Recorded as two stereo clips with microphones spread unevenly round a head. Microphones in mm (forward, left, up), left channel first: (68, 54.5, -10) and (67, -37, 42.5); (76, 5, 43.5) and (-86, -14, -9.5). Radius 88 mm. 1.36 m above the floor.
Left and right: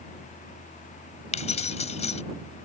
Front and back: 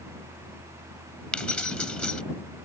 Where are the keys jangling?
85° left.